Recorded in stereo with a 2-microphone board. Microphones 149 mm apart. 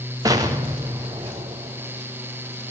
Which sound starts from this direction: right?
An explosion, at 0.2 s.